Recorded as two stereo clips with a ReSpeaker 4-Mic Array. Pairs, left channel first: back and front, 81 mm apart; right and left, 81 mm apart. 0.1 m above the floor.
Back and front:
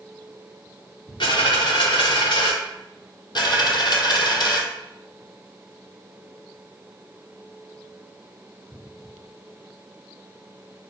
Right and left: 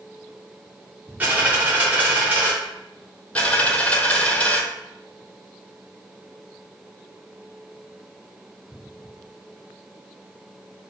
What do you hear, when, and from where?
1.2 s a dropped coin: 160° left, 1.9 m
3.4 s a dropped coin: 165° right, 0.7 m